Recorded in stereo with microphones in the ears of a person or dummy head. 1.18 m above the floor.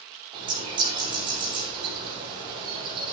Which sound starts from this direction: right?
A bird, at 0.3 s.